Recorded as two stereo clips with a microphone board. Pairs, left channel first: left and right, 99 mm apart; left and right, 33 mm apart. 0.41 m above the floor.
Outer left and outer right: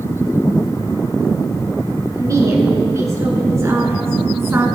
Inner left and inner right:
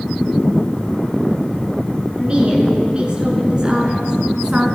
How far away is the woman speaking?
About 6 m.